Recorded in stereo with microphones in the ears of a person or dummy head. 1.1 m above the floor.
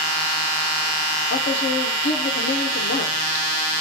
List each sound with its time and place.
1.3 s a man speaking: 55° left (ahead or behind), 0.6 m